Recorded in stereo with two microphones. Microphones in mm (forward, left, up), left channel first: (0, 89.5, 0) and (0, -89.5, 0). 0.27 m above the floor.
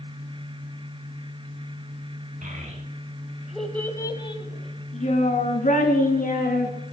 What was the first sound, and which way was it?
A child speaking, 50° right (ahead or behind).